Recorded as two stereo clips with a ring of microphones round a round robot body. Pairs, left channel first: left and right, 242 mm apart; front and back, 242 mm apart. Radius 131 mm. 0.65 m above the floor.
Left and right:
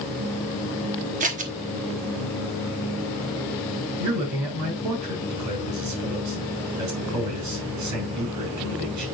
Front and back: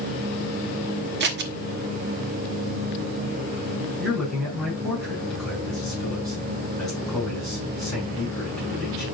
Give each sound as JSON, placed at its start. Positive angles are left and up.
{"t": 1.2, "sound": "scissors", "azimuth_deg": -145, "distance_m": 1.1}
{"t": 4.0, "sound": "a man speaking", "azimuth_deg": -90, "distance_m": 5.5}